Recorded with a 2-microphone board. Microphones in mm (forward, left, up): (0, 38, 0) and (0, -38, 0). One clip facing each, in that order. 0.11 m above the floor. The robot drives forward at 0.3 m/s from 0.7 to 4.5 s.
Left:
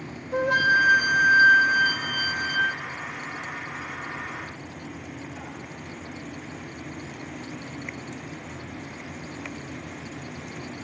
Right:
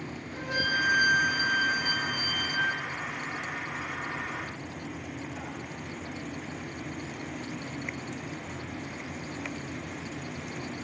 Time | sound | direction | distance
0.3 | a flute | 65° left (ahead or behind) | 0.8 m